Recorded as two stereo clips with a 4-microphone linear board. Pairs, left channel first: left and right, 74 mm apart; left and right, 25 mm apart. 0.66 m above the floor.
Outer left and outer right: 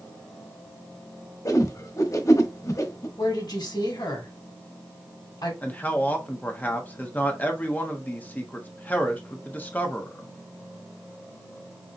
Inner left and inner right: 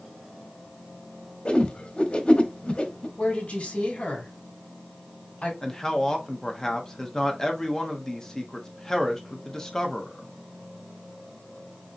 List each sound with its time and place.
1.4 s a whoosh: 50° left (ahead or behind), 1.0 m
3.2 s a woman speaking: 70° left (ahead or behind), 3 m
5.6 s a man speaking: 25° left (ahead or behind), 1.0 m